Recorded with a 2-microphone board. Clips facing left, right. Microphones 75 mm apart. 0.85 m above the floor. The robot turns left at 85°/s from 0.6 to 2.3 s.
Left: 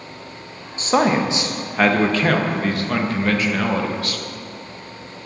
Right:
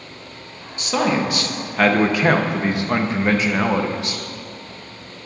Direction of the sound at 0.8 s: 95° left.